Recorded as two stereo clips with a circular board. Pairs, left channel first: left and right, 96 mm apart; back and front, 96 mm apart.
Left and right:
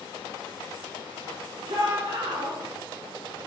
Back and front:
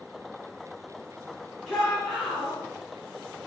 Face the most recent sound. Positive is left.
turn(degrees=-95)